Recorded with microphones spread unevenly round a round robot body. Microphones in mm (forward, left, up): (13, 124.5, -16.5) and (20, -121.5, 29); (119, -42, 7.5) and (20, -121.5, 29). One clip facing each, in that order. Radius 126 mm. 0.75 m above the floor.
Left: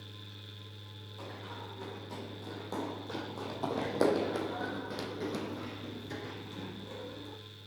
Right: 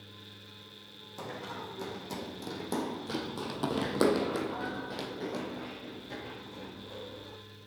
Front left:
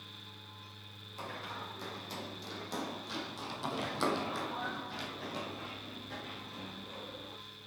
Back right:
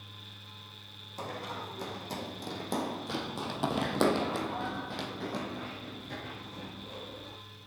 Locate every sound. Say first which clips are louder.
1.2 s running footsteps: right 5 dB, back right 5 dB; 100° right, 2.5 m; by 7.4 s 145° left, 3 m